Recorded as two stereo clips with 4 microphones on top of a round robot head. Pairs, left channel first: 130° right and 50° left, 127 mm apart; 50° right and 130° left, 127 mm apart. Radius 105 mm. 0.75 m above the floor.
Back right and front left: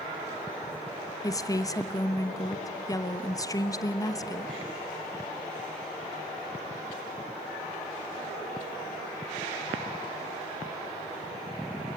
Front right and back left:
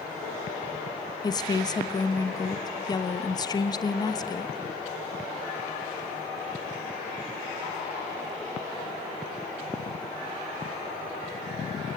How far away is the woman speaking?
About 1.1 m.